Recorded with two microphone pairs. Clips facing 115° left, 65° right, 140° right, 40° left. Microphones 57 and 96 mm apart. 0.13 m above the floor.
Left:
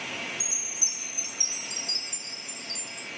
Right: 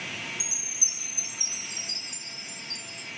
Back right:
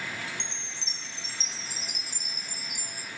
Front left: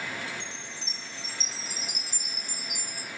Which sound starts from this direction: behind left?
A chime, at 0.4 s.